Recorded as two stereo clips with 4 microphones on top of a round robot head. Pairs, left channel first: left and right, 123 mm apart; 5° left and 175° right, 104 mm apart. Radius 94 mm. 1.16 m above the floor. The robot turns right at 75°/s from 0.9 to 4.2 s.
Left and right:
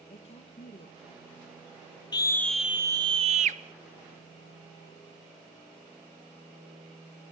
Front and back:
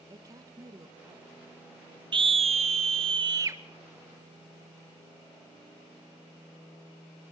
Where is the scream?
145° left, 1.3 m; by 3.6 s 105° right, 1.3 m.